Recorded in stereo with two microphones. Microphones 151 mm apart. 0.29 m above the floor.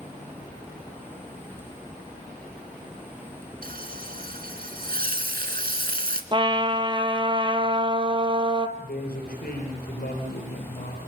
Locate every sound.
3.6 s frying: 75° right (ahead or behind), 1.9 m
6.3 s a trumpet: 30° right (ahead or behind), 1.3 m
8.8 s a woman speaking: 75° left (ahead or behind), 7 m